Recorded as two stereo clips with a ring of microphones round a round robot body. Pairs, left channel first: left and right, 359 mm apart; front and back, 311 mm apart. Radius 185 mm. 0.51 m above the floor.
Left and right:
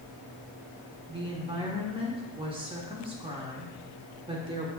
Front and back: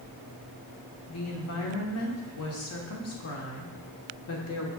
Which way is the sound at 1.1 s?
20° right.